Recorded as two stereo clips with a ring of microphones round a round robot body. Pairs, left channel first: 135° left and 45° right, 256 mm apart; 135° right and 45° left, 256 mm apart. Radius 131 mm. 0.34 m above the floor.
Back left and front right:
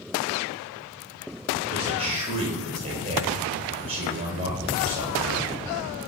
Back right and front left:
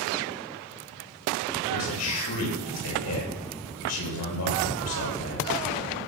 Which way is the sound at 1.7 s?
115° right.